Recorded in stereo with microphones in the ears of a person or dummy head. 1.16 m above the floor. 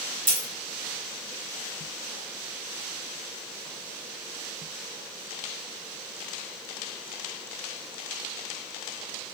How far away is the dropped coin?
About 1.8 m.